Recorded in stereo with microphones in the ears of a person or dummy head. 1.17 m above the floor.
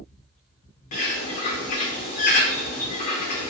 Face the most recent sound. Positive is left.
turn(degrees=40)  # may be behind; listen again after turning